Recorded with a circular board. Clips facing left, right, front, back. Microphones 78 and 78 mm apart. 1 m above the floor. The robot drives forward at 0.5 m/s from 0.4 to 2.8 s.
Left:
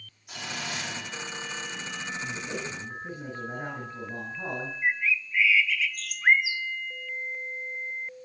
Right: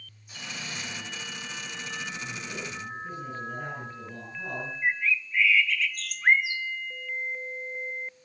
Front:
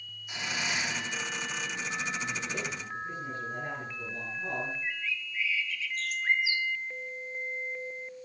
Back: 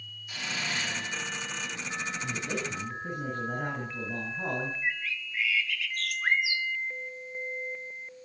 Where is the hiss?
70° left, 2 m; by 1.7 s 90° left, 2.0 m.